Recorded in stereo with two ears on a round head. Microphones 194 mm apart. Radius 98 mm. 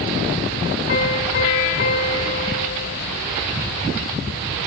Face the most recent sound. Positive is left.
turn(degrees=50)  # may be behind; listen again after turning